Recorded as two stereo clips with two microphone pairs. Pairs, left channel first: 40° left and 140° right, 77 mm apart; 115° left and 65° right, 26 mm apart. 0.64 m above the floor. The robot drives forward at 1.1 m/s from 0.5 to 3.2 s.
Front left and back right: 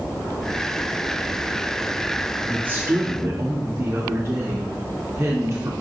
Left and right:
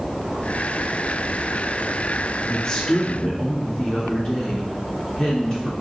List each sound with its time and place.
2.5 s a woman speaking: 150° left, 0.5 m; by 5.7 s 170° left, 1.1 m